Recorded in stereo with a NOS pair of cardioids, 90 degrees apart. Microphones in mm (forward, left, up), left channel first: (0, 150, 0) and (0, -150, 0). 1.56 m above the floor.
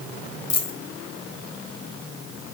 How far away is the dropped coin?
About 4 m.